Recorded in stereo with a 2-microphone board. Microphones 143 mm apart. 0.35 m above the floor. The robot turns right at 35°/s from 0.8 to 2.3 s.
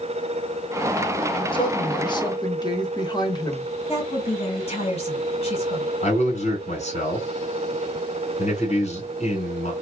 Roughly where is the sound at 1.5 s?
Left.